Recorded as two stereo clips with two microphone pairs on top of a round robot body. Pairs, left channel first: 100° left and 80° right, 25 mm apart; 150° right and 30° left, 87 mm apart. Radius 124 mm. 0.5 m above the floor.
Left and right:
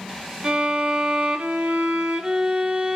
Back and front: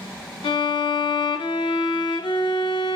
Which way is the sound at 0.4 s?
120° right.